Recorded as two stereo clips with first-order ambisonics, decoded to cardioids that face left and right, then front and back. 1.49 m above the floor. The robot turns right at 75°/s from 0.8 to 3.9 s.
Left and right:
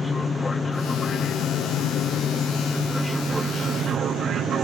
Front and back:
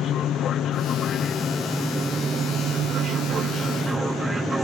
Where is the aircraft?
15° left; by 4.6 s 110° right.